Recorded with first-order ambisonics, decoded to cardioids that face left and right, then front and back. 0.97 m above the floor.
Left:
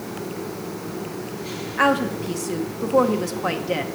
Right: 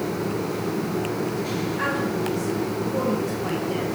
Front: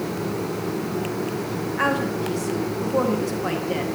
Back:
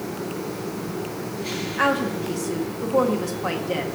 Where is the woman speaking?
100° left, 0.8 m.